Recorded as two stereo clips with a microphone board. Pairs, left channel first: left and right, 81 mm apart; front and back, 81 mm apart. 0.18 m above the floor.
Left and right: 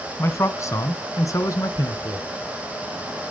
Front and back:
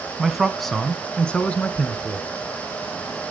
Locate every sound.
0.2 s a man speaking: 100° left, 1.3 m; by 2.3 s 60° left, 1.8 m